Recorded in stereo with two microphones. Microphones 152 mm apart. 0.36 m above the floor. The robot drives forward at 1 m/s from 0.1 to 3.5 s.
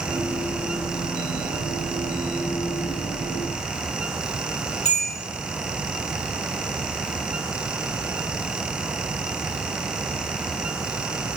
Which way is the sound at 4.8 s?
45° left (ahead or behind).